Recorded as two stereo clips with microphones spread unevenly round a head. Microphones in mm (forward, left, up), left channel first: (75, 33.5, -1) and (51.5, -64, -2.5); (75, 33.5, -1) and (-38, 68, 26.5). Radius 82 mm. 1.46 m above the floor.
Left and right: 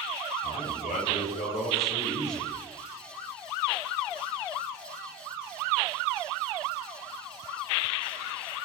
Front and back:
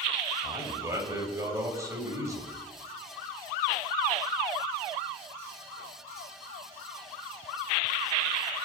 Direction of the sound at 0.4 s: 100° left.